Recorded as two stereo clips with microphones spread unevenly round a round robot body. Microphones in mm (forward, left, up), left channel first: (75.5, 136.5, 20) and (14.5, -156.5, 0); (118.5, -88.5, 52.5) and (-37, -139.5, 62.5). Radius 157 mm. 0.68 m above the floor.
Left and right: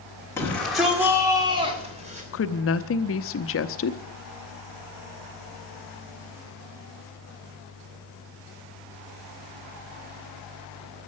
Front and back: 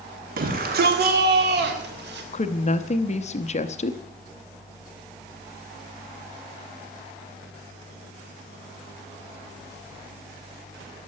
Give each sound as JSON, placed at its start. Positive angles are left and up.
{"t": 0.4, "sound": "a shout", "azimuth_deg": 160, "distance_m": 1.6}
{"t": 2.3, "sound": "a woman speaking", "azimuth_deg": 45, "distance_m": 0.7}